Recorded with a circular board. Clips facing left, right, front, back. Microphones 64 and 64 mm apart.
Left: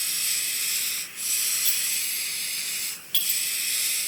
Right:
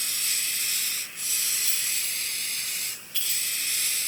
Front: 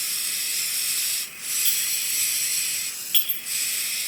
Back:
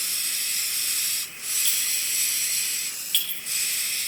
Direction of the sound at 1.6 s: 80° left.